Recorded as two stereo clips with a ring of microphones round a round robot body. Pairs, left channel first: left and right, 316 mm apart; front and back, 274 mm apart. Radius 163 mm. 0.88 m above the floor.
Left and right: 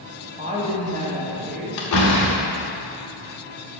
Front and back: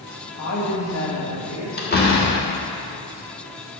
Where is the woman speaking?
20° right, 1.7 m; by 1.7 s 30° right, 2.5 m.